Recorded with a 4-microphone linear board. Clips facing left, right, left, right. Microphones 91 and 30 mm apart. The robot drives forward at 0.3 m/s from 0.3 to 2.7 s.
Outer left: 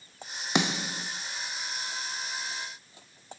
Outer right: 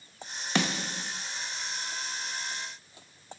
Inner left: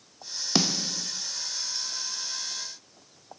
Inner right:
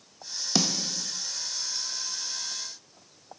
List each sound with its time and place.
0.6 s a snare drum: 15° left (ahead or behind), 0.5 m